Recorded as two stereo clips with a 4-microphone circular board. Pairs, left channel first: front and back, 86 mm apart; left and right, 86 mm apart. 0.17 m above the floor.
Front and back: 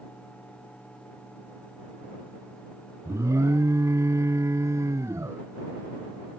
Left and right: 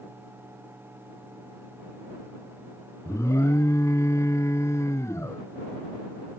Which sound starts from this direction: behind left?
An alarm, at 3.0 s.